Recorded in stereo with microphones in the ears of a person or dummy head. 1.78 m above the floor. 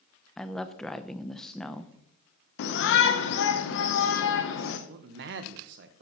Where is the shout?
65° left (ahead or behind), 0.8 m.